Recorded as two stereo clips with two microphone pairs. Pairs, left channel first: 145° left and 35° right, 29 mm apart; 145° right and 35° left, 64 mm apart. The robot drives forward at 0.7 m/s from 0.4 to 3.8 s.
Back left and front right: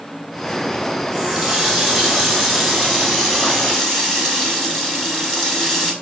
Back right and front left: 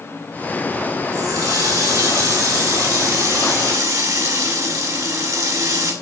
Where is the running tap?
45° left, 6.5 m; by 5.9 s 60° left, 5.5 m.